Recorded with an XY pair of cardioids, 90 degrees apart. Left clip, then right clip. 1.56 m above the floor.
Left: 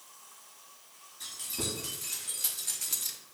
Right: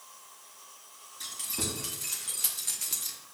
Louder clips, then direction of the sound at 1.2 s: Right 1 dB; 45° right.